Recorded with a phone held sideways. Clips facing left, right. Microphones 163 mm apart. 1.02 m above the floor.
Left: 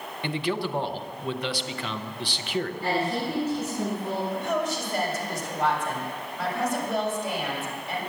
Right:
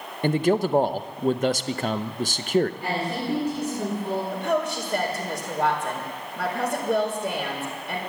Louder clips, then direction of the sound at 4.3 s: Right 2 dB; 60° right (ahead or behind).